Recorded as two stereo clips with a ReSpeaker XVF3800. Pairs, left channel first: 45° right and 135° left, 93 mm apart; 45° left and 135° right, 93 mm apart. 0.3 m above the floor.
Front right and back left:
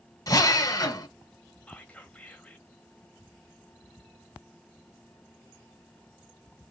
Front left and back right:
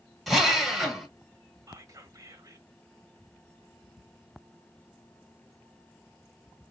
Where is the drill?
50° right, 1.4 m.